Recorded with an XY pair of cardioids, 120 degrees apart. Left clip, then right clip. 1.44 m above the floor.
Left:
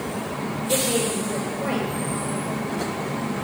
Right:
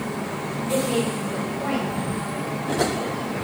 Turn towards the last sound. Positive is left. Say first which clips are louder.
# left 1 dB
turn(degrees=15)